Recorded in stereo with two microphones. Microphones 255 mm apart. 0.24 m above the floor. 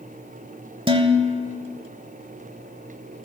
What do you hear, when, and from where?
0.9 s dishes clattering: 20° right (ahead or behind), 0.9 m